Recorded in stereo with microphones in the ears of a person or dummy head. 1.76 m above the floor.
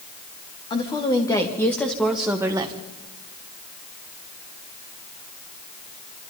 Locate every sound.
0.7 s a woman speaking: 25° left (ahead or behind), 3 m; by 2.8 s 25° right (ahead or behind), 1.7 m